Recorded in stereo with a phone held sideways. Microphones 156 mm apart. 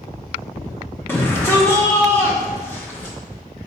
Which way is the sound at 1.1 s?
10° left (ahead or behind).